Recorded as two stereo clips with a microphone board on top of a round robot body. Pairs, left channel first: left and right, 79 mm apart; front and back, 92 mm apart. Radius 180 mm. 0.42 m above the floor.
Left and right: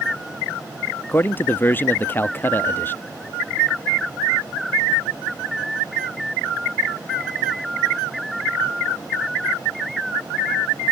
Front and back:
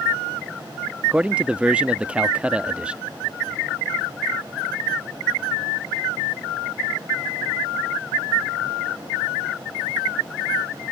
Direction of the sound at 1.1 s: 115° left.